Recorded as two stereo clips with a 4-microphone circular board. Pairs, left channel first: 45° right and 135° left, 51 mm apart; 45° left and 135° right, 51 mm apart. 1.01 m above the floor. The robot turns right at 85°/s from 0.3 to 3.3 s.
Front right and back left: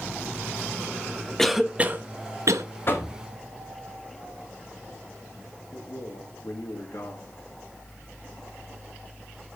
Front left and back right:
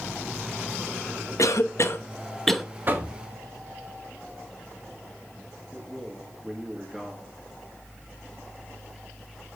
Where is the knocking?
85° right, 1.6 m; by 3.1 s 65° right, 1.6 m.